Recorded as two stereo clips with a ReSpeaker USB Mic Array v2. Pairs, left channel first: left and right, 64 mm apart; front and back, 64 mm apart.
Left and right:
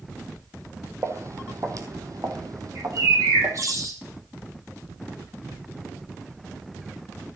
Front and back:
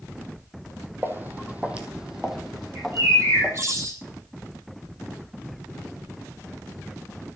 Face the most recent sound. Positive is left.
turn(degrees=-130)